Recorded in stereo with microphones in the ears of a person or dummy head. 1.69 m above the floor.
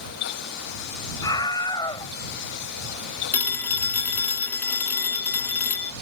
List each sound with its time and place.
1.2 s a scream: 15° left (ahead or behind)
3.3 s a phone ringing: 15° left (ahead or behind)